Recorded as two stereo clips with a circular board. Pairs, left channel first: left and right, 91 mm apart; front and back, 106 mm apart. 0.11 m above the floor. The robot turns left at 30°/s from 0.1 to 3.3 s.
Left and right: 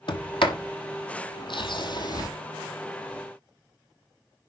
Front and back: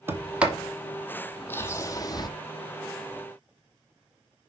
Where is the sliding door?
110° left, 1.2 m; by 2.3 s 45° left, 1.2 m.